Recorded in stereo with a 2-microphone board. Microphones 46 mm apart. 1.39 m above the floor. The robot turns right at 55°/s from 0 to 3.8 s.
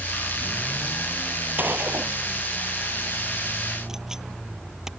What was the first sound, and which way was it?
A gunshot, 45° right (ahead or behind).